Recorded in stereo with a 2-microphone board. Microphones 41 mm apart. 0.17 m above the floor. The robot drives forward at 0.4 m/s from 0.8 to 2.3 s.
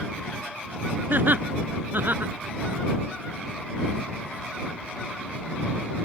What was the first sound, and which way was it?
Laughter, 55° right (ahead or behind).